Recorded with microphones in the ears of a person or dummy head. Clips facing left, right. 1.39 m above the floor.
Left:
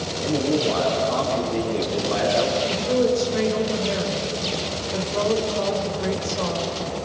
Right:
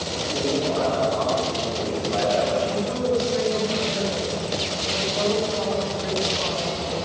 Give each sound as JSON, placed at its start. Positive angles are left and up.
{"t": 0.2, "sound": "a man speaking", "side_deg": 85, "distance_m": 7.0}
{"t": 2.6, "sound": "a woman speaking", "side_deg": 60, "distance_m": 6.5}